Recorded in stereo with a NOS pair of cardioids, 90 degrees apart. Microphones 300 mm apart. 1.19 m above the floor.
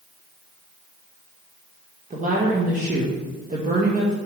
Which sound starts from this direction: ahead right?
A woman speaking, at 2.1 s.